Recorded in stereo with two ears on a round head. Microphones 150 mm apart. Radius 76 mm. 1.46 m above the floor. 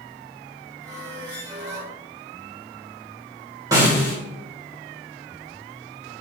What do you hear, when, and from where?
0.8 s a squeak: 20° right (ahead or behind), 2.5 m
3.7 s a snare drum: 20° right (ahead or behind), 2.5 m